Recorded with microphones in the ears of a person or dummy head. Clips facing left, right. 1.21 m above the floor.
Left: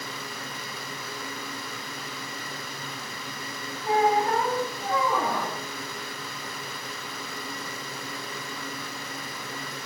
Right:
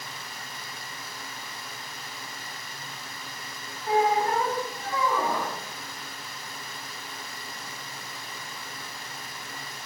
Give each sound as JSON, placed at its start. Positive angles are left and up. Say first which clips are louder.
{"t": 3.9, "sound": "a squeak", "louder": "left 1 dB", "side_deg": 20, "distance_m": 3.5}